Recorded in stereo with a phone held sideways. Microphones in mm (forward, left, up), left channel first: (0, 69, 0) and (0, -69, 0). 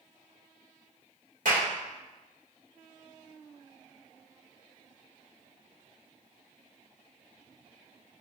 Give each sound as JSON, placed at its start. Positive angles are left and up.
{"t": 1.4, "sound": "a clap", "side_deg": -70, "distance_m": 2.0}